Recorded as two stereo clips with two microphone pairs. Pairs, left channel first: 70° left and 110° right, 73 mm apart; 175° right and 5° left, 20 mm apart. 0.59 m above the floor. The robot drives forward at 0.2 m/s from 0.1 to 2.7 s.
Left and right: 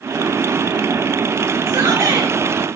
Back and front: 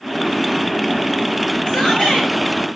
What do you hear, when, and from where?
1.7 s a shout: 155° right, 7.5 m